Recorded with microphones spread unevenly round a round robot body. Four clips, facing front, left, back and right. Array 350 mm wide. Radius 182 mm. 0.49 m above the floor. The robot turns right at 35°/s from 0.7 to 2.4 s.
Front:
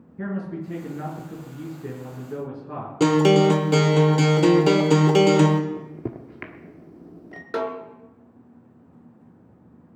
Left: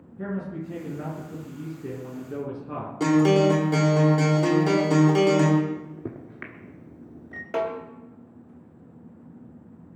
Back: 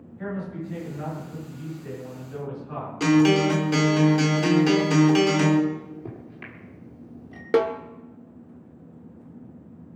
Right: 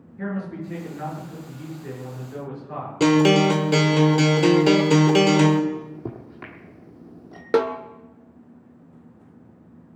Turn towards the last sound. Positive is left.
turn(degrees=-125)